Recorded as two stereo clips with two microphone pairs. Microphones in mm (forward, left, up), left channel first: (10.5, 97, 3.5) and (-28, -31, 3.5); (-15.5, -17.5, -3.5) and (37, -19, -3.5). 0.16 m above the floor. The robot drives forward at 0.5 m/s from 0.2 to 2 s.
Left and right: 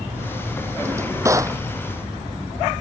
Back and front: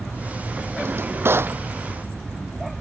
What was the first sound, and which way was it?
A drawer, 35° right.